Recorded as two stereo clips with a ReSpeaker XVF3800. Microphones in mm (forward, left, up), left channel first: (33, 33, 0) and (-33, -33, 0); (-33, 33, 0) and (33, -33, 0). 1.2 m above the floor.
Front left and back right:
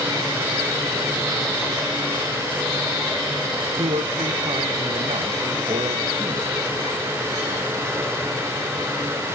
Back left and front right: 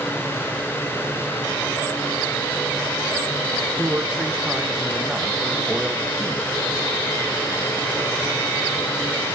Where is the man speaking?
130° right, 1.3 m.